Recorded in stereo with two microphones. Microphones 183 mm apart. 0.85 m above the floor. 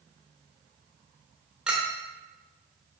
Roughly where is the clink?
Centre.